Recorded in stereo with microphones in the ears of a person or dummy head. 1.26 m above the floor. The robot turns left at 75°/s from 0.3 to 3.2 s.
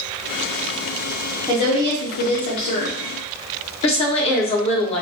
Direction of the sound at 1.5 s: 155° left.